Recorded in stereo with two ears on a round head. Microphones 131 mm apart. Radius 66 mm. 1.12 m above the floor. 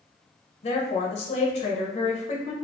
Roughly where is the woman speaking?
Left.